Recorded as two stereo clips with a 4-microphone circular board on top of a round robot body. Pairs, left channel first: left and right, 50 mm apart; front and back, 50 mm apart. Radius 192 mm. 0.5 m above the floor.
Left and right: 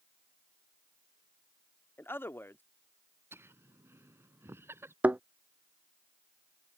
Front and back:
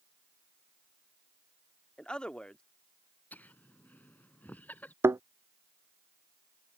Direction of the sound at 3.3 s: 55° right.